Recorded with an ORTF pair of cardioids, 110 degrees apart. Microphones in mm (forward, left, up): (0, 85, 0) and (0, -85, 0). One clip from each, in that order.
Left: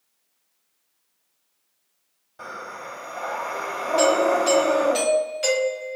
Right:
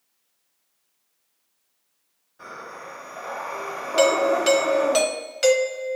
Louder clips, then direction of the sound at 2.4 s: Left 3 dB; 65° left.